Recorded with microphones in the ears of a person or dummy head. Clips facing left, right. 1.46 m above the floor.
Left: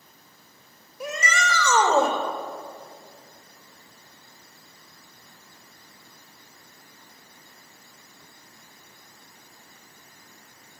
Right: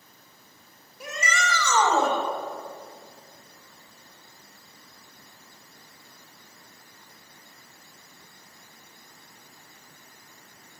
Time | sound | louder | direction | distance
1.0 | a shout | left 2 dB | 65° left (ahead or behind) | 2.5 m